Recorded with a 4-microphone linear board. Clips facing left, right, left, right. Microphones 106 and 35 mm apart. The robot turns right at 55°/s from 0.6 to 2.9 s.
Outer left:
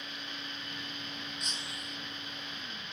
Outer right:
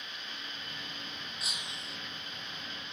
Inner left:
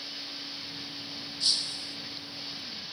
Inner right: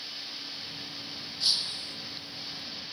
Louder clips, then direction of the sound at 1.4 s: Outer left 1 dB, inner right 1 dB; 175° right.